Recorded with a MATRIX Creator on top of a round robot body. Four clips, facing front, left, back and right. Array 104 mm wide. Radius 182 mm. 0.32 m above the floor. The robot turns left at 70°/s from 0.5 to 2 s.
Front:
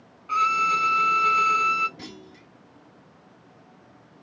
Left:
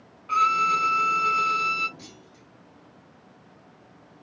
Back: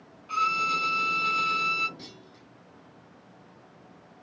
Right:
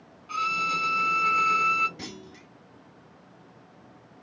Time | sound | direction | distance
0.3 | a violin | 45° left | 1.2 m
2.0 | a clunk | 60° right | 0.6 m